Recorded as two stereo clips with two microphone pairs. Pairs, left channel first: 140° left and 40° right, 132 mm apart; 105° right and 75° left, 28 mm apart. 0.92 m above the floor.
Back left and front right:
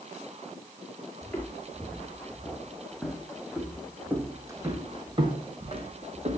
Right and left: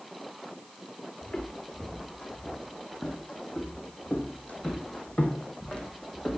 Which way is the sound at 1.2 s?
150° right.